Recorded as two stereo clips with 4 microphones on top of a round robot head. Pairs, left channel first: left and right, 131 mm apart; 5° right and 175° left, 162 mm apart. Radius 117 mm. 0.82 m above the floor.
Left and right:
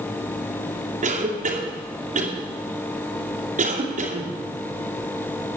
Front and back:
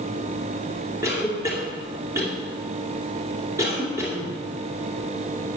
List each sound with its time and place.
1.0 s a cough: 110° right, 2.5 m